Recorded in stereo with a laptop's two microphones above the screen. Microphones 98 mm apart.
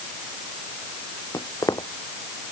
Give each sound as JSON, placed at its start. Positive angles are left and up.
{"t": 1.3, "sound": "footsteps", "side_deg": 40}